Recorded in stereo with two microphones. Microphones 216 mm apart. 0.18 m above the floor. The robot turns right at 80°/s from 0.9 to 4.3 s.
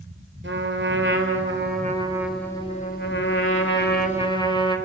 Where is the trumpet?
115° right, 4 m; by 4.8 s 155° left, 4 m.